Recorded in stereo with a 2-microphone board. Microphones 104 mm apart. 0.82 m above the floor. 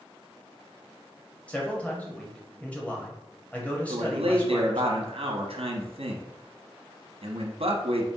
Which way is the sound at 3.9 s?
65° right (ahead or behind).